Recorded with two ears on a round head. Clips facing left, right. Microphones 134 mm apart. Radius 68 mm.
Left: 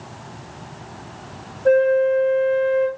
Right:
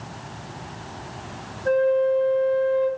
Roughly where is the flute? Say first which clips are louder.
Left 4 dB; left.